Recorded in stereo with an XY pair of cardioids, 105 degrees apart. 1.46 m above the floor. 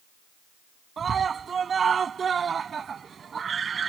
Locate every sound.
1.0 s a scream: 40° right